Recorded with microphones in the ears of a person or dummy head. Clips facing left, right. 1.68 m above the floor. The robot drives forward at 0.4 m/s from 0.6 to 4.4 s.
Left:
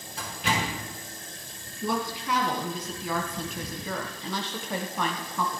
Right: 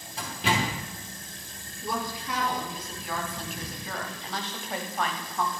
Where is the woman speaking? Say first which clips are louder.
Left 3 dB; 45° left (ahead or behind), 1.4 m; by 5.6 s 80° left, 1.0 m.